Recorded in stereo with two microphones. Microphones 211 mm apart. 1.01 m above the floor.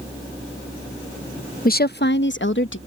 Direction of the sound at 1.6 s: 40° left (ahead or behind).